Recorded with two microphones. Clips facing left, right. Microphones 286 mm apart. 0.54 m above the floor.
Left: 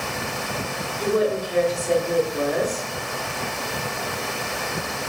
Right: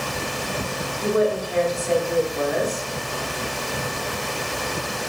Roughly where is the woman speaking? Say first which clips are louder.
Even; left.